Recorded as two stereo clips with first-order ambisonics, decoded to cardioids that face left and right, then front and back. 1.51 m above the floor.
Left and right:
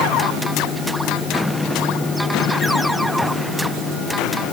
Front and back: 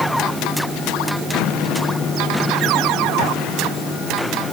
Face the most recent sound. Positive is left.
No sound to turn to.